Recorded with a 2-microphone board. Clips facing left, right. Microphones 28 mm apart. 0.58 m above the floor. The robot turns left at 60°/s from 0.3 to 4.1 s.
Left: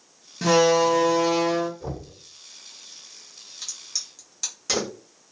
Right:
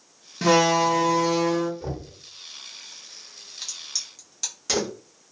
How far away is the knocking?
About 1.4 m.